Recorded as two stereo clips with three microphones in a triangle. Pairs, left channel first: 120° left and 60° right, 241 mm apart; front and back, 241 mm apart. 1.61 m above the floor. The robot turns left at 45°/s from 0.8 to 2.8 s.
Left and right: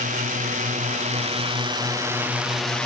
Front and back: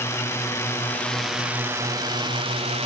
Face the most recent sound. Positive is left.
turn(degrees=-155)